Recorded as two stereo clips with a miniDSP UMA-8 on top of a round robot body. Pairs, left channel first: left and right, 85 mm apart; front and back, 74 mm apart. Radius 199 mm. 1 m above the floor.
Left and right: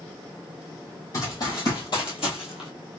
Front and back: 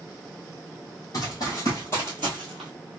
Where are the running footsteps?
40° left, 1.8 m; by 2.7 s 95° left, 1.2 m.